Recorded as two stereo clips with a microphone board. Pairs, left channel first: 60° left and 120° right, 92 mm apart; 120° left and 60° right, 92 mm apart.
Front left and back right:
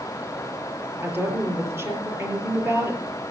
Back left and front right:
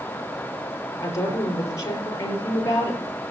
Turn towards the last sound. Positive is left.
turn(degrees=175)